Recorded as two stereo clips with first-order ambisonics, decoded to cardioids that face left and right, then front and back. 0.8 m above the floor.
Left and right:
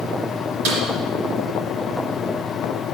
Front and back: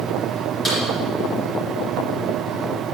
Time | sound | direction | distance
0.7 | a snare drum | 75° right | 3.5 m